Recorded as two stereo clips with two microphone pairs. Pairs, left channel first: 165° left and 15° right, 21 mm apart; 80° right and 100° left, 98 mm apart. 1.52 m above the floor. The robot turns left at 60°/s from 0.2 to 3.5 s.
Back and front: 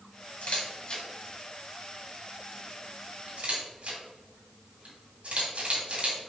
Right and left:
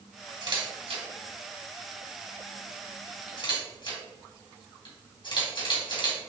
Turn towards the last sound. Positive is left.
turn(degrees=-45)